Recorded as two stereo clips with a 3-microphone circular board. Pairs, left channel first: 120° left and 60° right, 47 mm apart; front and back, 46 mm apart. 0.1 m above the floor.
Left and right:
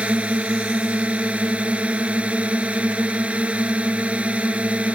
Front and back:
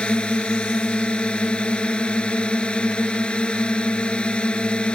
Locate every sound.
0.0 s a drone: 40° right